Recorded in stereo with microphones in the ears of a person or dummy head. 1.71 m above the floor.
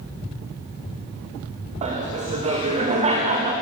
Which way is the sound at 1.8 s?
30° right (ahead or behind).